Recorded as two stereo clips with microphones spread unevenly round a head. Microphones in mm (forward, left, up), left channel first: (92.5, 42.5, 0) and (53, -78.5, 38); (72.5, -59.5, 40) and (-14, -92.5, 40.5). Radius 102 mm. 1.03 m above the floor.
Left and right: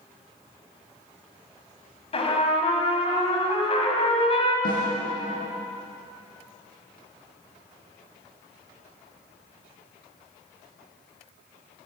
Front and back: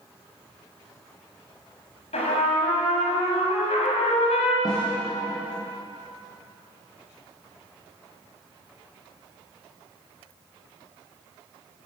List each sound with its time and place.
2.1 s a trumpet: 25° left, 5 m
4.7 s a snare drum: 85° left, 9 m